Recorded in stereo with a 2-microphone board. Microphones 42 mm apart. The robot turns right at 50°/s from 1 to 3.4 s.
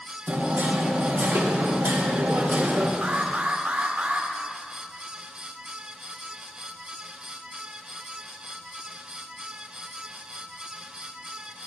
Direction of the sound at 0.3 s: 125° right.